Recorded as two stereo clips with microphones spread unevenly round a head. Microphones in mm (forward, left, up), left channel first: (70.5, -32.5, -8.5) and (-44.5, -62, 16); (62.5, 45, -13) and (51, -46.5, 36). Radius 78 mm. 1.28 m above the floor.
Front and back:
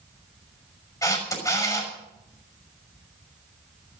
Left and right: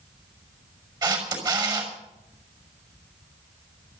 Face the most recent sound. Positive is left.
turn(degrees=-50)